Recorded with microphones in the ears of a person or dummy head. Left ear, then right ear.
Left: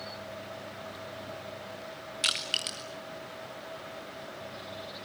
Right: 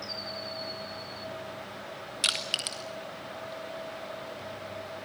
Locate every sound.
2.2 s crushing: centre (ahead or behind), 0.9 m